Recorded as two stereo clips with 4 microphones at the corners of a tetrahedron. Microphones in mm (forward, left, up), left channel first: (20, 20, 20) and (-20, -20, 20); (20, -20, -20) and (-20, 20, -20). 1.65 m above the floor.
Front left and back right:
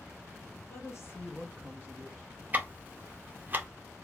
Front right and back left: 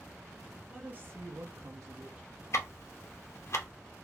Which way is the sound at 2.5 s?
80° right.